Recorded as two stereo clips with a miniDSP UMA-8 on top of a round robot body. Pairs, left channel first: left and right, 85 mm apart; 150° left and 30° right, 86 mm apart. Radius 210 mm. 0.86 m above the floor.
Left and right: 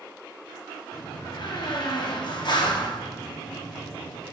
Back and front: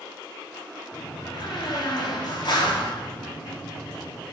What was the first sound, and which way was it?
A door slam, 115° left.